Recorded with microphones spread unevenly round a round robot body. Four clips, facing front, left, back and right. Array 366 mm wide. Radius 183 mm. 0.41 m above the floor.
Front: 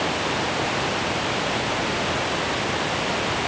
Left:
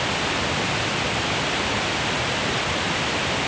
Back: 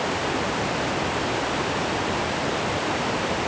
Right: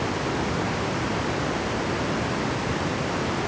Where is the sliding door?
No sliding door in this recording.